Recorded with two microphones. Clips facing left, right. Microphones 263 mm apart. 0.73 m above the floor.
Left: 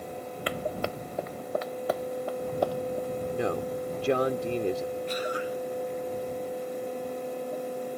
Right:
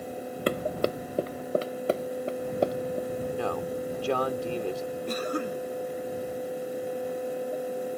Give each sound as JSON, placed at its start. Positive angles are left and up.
{"t": 0.5, "sound": "running footsteps", "side_deg": -45}
{"t": 3.3, "sound": "a man speaking", "side_deg": 20}
{"t": 5.1, "sound": "a cough", "side_deg": -55}